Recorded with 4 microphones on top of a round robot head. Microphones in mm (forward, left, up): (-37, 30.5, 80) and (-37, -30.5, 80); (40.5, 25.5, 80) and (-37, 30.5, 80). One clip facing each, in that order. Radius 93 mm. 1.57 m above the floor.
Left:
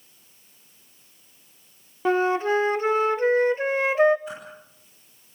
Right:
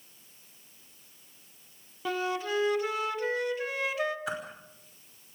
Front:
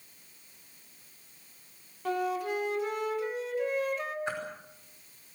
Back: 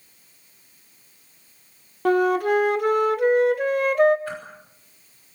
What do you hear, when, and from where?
2.0 s a flute: 145° left, 0.8 m
4.3 s a whoosh: 75° right, 5.5 m